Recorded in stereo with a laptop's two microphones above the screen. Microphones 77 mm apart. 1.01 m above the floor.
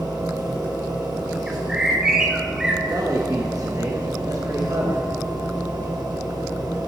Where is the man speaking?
45° right (ahead or behind), 0.8 m.